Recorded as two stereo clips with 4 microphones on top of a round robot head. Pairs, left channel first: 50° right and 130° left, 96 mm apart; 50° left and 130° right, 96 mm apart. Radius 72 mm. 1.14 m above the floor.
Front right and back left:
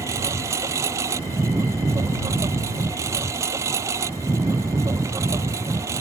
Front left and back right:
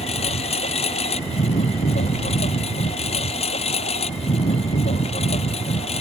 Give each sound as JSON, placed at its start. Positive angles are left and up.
{"t": 0.0, "sound": "a lawn mower", "azimuth_deg": 65}